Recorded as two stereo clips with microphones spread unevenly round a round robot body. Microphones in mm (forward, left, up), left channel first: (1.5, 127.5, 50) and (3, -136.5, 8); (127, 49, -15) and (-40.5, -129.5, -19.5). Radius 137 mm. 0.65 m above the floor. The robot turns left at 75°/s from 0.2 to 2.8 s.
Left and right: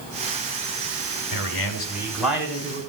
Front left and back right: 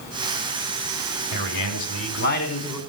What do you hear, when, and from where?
1.3 s a man speaking: 70° left, 5 m; by 2.8 s 40° right, 5 m